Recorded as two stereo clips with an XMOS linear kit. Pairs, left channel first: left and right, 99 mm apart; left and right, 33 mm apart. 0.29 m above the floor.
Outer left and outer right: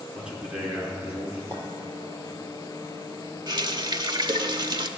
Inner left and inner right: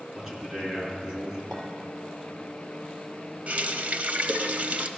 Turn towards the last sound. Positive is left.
turn(degrees=-45)  # may be behind; listen again after turning